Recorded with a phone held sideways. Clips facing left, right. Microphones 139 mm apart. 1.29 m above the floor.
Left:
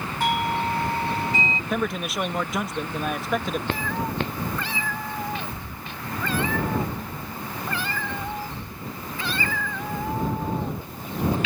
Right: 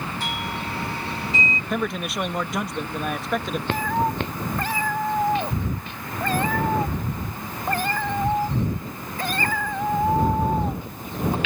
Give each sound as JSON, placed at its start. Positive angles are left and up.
{"t": 0.2, "sound": "a doorbell", "side_deg": 55}
{"t": 1.7, "sound": "a man speaking", "side_deg": 0}
{"t": 3.7, "sound": "a cat meowing", "side_deg": -45}